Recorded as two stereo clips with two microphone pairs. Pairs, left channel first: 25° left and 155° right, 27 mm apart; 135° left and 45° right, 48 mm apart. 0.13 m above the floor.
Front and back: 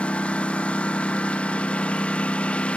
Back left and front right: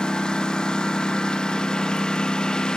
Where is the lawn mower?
65° left.